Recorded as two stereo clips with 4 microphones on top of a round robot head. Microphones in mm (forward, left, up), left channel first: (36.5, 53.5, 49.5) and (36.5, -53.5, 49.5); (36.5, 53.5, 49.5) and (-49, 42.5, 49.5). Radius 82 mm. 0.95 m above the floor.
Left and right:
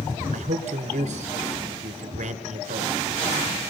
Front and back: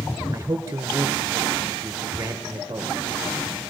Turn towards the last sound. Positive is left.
turn(degrees=-105)